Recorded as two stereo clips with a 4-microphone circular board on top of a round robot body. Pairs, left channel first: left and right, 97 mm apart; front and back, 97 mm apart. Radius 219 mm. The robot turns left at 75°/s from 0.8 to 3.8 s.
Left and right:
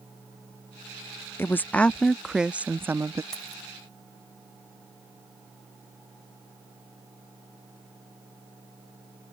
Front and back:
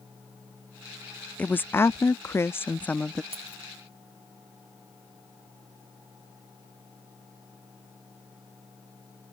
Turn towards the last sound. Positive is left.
turn(degrees=140)